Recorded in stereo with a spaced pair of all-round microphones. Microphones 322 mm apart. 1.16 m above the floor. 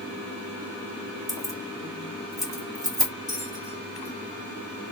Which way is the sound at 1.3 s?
10° left (ahead or behind).